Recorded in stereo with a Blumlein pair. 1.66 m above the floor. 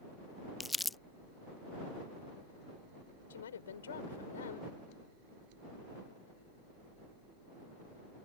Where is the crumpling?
10° left.